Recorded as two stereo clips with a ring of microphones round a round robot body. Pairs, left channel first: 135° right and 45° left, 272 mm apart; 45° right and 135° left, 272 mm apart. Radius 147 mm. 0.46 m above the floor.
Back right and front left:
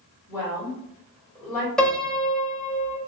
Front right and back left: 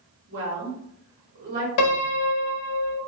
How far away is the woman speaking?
About 1.8 m.